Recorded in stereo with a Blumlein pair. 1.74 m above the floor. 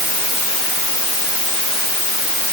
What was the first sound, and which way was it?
Only background noise.